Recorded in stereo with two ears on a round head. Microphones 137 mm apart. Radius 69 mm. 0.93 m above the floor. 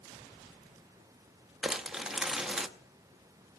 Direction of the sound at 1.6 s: 5° right (ahead or behind).